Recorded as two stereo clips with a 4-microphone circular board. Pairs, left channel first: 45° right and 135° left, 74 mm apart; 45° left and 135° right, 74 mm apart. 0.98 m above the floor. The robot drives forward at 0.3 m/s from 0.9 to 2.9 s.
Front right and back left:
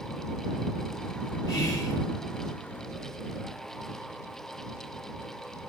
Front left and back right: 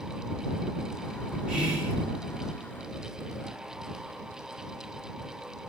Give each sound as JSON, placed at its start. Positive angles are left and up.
{"t": 1.5, "sound": "whispering", "azimuth_deg": -60, "distance_m": 0.5}